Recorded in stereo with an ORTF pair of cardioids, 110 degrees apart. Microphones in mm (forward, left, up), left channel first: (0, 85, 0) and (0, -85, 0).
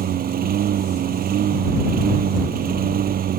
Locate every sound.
0.0 s a lawn mower: 60° right